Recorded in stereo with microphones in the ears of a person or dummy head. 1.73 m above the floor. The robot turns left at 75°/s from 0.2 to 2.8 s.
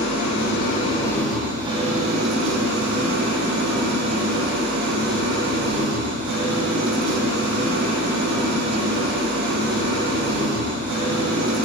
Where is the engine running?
85° left, 1.5 m; by 11.7 s 110° right, 1.5 m.